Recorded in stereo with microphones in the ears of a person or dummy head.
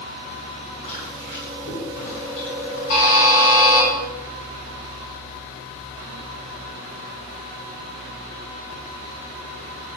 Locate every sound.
0.8 s chewing: 40° left (ahead or behind), 5.5 m
2.9 s a buzzer: 70° left (ahead or behind), 3.5 m